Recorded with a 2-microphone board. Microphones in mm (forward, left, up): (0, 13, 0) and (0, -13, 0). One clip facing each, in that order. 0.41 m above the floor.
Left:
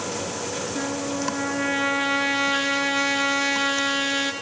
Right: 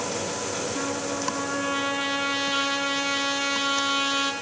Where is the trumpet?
25° right (ahead or behind), 3.5 m.